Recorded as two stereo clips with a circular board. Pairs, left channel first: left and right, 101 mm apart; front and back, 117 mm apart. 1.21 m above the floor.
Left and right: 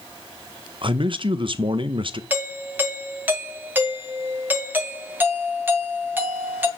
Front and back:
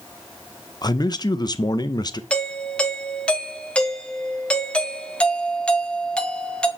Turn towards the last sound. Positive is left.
turn(degrees=-65)